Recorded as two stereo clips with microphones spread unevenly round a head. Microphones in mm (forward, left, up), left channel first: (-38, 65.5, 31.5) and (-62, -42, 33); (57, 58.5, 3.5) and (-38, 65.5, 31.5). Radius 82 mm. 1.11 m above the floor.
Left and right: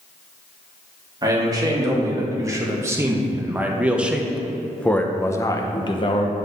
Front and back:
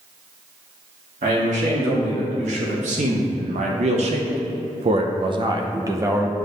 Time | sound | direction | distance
1.2 | a man speaking | 155° right | 2.5 m